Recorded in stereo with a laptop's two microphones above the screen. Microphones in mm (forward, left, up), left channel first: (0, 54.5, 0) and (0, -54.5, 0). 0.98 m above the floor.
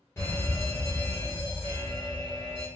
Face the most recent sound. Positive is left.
turn(degrees=20)  # may be behind; listen again after turning